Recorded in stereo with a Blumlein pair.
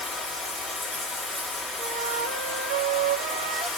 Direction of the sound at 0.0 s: 10° left.